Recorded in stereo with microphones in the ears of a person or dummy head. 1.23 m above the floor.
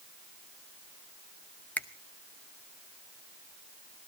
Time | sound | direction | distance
1.8 | a finger snap | 5° left (ahead or behind) | 0.8 m